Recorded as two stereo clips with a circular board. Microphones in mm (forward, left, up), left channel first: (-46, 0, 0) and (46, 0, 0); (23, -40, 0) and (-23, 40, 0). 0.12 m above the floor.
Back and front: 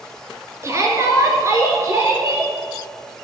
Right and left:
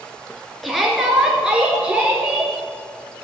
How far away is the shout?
About 1.7 m.